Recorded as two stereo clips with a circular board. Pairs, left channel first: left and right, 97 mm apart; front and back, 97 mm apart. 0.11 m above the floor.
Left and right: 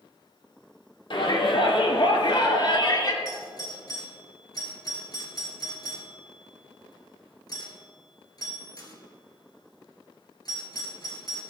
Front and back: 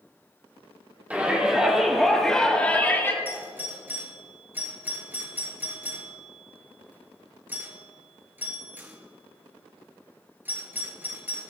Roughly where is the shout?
Left.